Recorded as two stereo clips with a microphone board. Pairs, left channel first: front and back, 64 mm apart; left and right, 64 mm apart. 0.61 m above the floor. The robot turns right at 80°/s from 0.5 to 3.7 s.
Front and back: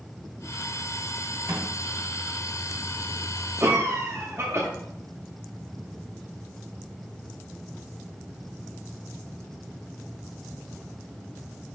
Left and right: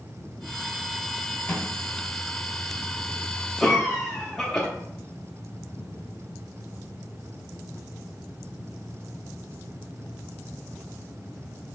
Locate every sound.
1.5 s a microwave: 145° left, 1.7 m; by 1.7 s 160° left, 1.7 m
3.6 s a cough: 165° left, 0.7 m; by 4.7 s 175° left, 0.7 m